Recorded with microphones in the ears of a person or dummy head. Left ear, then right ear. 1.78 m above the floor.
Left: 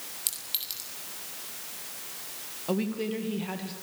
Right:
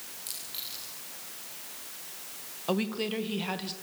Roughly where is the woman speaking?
Right.